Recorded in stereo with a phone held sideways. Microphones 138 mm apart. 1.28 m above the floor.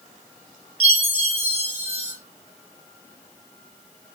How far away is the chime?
About 3 m.